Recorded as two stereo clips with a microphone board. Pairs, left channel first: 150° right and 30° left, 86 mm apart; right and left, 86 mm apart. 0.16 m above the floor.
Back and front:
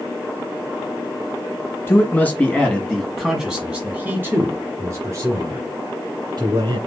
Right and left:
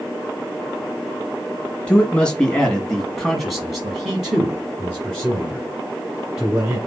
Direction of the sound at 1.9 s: 145° right.